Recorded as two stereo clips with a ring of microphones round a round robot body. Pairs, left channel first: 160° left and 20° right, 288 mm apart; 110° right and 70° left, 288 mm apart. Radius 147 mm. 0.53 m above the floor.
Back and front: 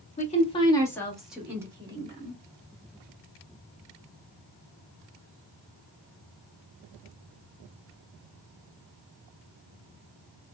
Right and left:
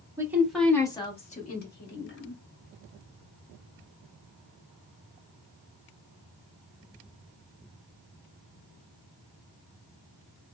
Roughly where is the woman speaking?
Behind left.